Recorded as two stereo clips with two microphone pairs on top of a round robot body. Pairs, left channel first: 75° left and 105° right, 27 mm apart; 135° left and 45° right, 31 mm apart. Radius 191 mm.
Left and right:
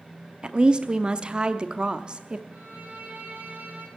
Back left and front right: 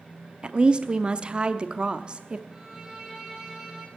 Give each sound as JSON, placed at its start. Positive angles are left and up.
{"t": 0.4, "sound": "a woman speaking", "azimuth_deg": -80, "distance_m": 1.1}
{"t": 2.5, "sound": "a violin", "azimuth_deg": -120, "distance_m": 3.5}